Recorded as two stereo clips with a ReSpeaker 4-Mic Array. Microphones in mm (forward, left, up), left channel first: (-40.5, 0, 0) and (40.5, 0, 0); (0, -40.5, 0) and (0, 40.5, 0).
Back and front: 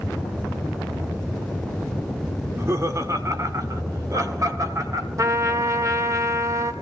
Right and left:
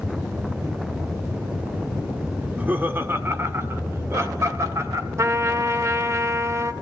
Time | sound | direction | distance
2.4 | laughter | 30° left | 1.3 m
5.2 | a trumpet | 45° left | 1.0 m